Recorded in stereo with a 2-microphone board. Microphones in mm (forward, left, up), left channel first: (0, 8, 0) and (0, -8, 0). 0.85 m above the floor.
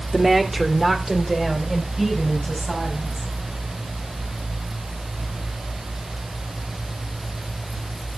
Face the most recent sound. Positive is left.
turn(degrees=-30)  # may be behind; listen again after turning